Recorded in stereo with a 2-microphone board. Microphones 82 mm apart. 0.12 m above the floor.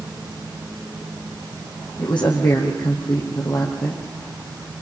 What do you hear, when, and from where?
2.0 s a woman speaking: 75° left (ahead or behind), 5 m